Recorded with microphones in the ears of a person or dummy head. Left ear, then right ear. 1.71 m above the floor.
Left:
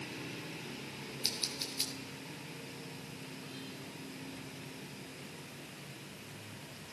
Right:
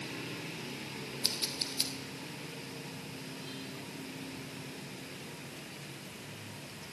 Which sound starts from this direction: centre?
Scissors, at 1.2 s.